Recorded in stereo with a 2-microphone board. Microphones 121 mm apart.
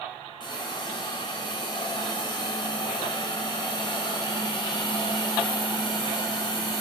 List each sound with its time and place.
0.4 s a hiss: 40° left (ahead or behind), 1.5 m